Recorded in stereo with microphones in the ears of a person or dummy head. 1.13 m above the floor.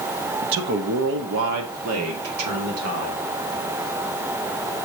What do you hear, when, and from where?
0.4 s a man speaking: 45° right (ahead or behind), 0.9 m; by 3.2 s 75° right (ahead or behind), 3 m